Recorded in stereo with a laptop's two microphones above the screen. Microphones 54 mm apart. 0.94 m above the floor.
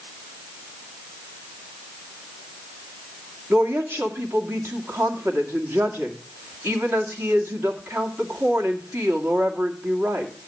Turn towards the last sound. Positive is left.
turn(degrees=-45)  # may be behind; listen again after turning